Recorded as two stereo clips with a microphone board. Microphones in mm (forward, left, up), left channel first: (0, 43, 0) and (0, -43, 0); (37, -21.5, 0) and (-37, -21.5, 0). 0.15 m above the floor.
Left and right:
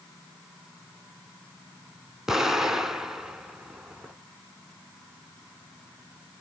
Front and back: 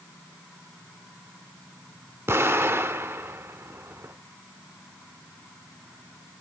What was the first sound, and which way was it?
An explosion, 170° right.